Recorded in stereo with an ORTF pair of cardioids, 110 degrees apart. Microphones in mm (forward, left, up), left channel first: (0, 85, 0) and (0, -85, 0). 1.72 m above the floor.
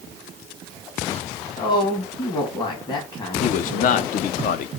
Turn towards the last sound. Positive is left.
turn(degrees=50)